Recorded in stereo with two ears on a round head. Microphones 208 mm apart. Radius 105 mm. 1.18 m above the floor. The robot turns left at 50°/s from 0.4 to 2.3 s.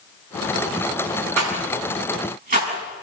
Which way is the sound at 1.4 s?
85° right.